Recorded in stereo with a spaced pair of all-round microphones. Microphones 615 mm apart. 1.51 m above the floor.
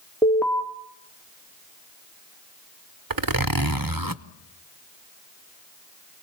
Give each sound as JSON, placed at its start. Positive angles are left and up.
{"t": 0.2, "sound": "an alarm", "side_deg": 5, "distance_m": 2.5}
{"t": 3.1, "sound": "a zipper", "side_deg": -35, "distance_m": 0.9}